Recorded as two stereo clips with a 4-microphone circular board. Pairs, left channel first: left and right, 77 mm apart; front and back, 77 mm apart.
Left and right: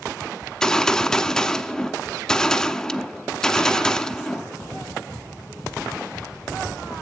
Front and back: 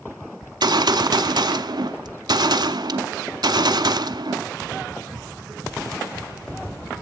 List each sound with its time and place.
0.4 s a gunshot: 170° left, 0.7 m